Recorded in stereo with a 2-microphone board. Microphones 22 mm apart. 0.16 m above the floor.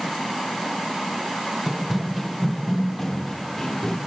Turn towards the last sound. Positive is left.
turn(degrees=25)  # may be behind; listen again after turning